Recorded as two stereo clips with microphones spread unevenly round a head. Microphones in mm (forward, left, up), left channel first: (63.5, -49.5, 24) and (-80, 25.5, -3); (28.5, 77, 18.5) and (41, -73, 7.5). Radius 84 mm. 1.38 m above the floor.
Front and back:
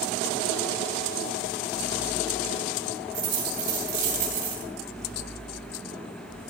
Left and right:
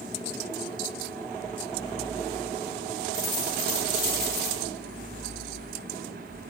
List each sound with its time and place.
3.1 s a dropped coin: 175° right, 8.5 m